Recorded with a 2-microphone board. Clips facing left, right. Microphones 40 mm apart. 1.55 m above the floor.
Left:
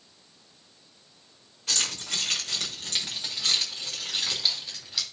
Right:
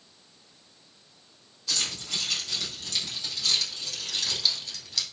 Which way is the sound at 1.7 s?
60° left (ahead or behind).